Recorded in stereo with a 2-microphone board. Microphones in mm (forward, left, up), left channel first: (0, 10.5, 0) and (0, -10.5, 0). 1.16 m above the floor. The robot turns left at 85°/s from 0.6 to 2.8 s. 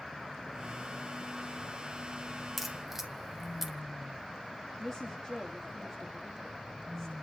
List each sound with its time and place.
2.6 s a crack: 5° right (ahead or behind), 1.4 m; by 3.8 s 20° right (ahead or behind), 1.4 m
4.8 s a woman speaking: 10° left (ahead or behind), 1.7 m